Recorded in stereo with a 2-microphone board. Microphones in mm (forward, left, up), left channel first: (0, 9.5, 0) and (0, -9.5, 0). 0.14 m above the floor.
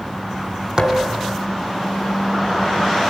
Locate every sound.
0.8 s a thud: 30° right (ahead or behind), 2.5 m